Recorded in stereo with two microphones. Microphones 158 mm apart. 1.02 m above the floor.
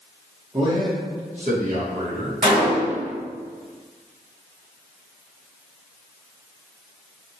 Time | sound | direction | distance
0.5 | a man speaking | 30° right (ahead or behind) | 0.9 m
2.4 | a gunshot | 65° right (ahead or behind) | 1.5 m